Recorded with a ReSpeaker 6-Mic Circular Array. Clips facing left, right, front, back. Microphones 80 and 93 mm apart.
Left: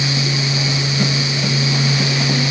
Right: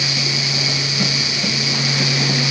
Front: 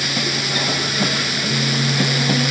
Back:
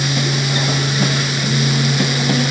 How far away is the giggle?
I don't hear a giggle.